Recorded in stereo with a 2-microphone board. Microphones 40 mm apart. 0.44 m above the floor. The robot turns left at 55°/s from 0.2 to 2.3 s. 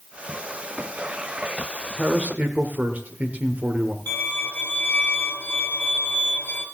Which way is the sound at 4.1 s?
55° left (ahead or behind).